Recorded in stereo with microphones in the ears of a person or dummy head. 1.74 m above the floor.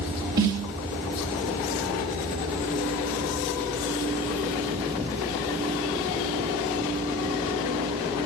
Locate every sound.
0.4 s a snare drum: 15° right (ahead or behind), 0.9 m